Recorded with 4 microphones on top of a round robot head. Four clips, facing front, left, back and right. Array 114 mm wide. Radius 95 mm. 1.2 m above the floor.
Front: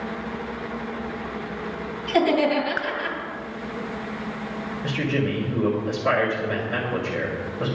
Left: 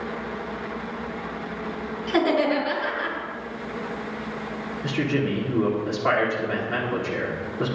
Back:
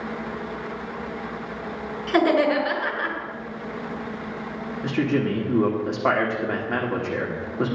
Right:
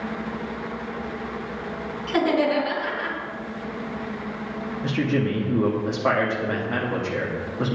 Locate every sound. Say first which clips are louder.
2.1 s laughter: even, back 1 dB; 175° left, 5.5 m
4.8 s a man speaking: right 1 dB, back 3 dB; 150° right, 3 m